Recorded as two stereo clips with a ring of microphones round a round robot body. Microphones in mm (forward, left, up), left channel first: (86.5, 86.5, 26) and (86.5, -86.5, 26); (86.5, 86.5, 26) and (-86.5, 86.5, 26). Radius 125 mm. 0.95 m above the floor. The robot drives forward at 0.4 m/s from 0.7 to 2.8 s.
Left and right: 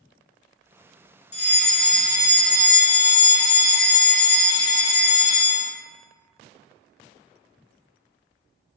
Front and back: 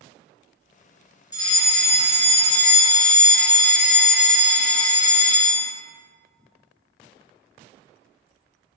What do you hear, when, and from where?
1.3 s a fire alarm: 60° left, 2 m; by 5.7 s 80° left, 2 m